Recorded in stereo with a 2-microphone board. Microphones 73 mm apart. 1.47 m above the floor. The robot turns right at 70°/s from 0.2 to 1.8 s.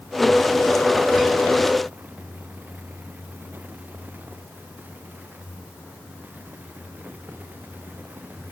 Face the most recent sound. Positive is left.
No sound to turn to.